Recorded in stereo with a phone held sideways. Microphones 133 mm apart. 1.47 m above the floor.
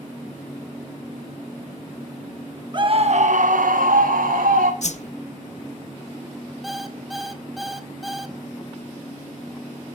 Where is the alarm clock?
Centre (ahead or behind), 1.3 m.